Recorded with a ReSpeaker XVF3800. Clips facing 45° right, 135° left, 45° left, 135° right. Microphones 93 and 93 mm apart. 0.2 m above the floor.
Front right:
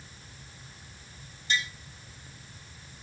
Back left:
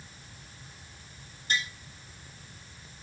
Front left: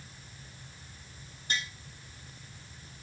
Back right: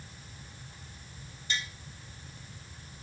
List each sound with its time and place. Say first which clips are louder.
1.5 s tapping: front right 1 dB, front left 1 dB; 90° left, 1.1 m